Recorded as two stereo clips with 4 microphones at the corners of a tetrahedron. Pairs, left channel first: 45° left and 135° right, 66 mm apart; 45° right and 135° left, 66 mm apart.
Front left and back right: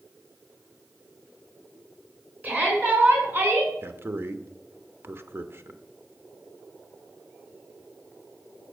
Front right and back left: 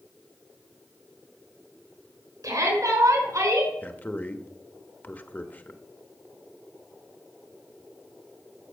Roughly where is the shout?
Behind.